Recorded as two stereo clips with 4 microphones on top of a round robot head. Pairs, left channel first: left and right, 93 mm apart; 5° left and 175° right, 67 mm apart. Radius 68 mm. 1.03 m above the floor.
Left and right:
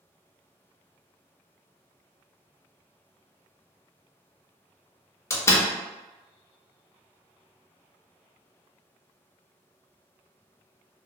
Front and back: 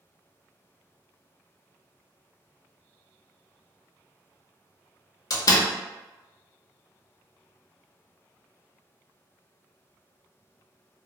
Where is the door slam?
30° left, 0.5 m.